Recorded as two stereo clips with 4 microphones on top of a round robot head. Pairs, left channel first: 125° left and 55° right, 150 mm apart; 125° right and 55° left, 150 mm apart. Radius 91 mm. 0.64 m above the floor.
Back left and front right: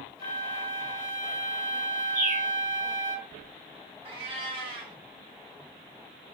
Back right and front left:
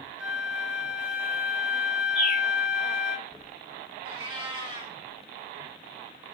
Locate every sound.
0.2 s a flute: 140° left, 1.4 m
2.1 s a bird: 30° right, 2 m
4.0 s a cat meowing: straight ahead, 1.0 m